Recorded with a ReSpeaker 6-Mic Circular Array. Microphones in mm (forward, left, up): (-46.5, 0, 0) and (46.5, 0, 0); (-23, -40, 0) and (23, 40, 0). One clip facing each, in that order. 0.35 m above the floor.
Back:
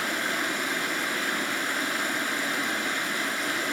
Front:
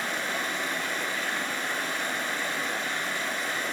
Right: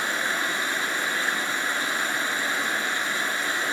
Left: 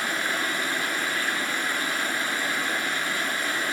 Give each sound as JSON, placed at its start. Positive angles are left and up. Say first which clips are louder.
{"t": 0.0, "sound": "running water", "louder": "back 2 dB, right 1 dB", "azimuth_deg": 170, "distance_m": 4.5}